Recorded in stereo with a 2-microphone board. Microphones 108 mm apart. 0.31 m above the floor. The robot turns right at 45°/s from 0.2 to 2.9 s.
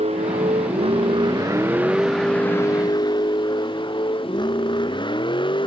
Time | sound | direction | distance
0.0 | a vehicle | 80° right | ?